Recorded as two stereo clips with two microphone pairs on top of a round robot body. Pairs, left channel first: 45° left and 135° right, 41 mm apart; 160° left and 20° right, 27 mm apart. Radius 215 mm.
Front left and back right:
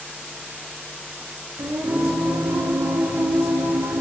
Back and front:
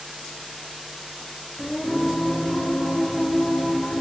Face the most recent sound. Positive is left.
turn(degrees=-120)